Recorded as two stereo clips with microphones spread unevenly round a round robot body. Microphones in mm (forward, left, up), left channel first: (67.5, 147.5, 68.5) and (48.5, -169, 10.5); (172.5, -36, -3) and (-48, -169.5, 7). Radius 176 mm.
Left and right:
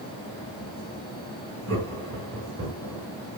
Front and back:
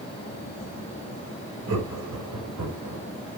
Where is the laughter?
145° right, 5 m.